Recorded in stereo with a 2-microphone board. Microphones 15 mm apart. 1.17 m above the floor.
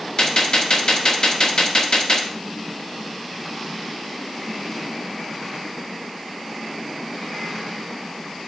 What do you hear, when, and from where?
0.2 s a gunshot: 60° left (ahead or behind), 1.5 m